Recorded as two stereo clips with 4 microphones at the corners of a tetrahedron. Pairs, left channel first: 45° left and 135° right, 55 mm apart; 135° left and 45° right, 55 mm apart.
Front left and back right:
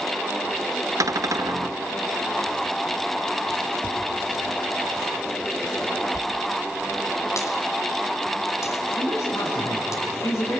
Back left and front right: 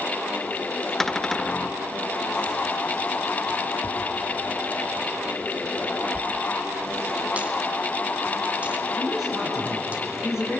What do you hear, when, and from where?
1.0 s a cupboard door: 145° right, 0.6 m
3.8 s tapping: 20° right, 5.5 m
6.1 s a dropped coin: 20° left, 1.8 m
9.0 s a man speaking: 40° left, 9 m